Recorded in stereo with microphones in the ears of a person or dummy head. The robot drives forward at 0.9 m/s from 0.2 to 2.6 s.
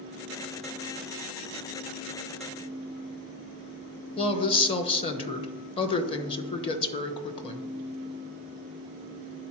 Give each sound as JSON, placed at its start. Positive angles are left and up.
{"t": 4.2, "sound": "a woman speaking", "side_deg": 30, "distance_m": 0.9}